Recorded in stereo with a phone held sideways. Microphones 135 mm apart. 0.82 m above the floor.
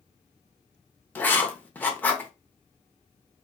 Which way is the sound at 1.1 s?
15° left (ahead or behind).